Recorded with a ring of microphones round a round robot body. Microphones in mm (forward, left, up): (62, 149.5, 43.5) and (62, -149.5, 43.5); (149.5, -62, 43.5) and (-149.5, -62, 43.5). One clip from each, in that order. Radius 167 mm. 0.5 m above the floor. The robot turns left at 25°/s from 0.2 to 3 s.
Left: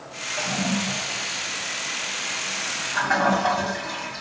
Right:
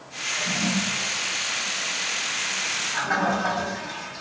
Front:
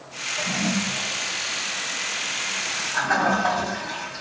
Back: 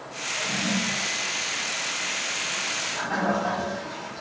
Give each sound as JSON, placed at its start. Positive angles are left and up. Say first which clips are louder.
{"t": 0.4, "sound": "a toilet flushing", "louder": "even, front 1 dB", "azimuth_deg": 80, "distance_m": 2.0}